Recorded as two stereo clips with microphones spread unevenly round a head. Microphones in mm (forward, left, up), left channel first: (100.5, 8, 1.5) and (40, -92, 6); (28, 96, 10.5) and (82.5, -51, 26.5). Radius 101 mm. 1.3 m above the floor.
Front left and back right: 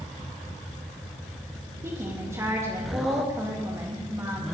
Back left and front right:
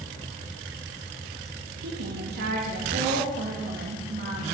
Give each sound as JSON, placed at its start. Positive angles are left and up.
{"t": 1.8, "sound": "a woman speaking", "azimuth_deg": -60, "distance_m": 2.5}